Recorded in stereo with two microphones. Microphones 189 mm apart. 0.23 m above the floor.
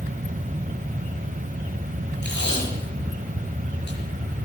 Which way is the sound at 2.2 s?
65° left (ahead or behind).